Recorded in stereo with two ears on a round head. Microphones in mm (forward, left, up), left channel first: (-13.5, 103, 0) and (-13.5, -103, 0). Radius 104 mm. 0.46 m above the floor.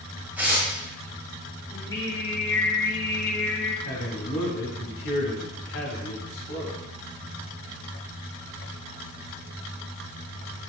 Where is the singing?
15° left (ahead or behind), 1.5 m.